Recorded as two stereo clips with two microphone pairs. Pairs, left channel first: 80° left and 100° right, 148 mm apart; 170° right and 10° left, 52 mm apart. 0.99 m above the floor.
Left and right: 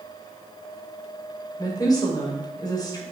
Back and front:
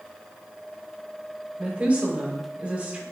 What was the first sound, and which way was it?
A woman speaking, 45° left.